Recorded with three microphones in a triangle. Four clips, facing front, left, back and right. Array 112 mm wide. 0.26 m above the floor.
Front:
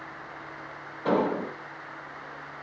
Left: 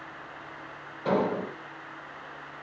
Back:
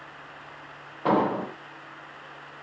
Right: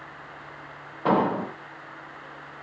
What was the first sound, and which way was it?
An explosion, 125° right.